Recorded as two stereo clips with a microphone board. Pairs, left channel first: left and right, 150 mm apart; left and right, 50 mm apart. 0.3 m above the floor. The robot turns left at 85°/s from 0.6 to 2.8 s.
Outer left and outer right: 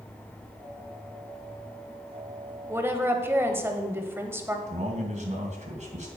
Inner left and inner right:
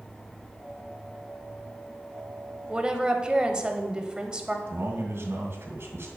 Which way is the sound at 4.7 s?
50° right (ahead or behind).